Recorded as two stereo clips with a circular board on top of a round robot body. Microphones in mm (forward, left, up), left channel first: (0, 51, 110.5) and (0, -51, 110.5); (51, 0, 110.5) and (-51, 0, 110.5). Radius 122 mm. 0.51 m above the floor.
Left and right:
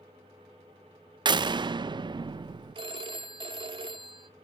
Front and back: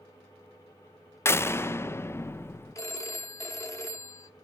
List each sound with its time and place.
1.2 s a door slam: 60° right, 0.5 m
2.8 s a phone ringing: 55° right, 1.1 m